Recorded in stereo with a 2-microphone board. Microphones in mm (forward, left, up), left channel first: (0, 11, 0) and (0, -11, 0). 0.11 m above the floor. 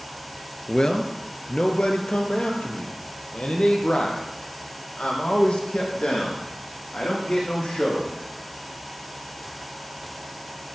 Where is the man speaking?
35° left (ahead or behind), 1.4 m; by 8.1 s 70° left (ahead or behind), 6 m.